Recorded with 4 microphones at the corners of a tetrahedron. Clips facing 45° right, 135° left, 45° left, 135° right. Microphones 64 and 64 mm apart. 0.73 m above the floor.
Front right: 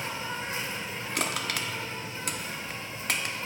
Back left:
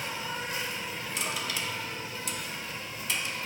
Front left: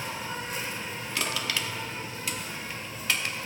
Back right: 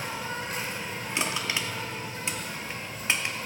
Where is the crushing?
70° right, 0.8 m.